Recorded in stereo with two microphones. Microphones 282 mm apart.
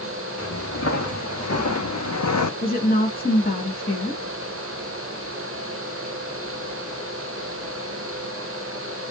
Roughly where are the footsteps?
Left.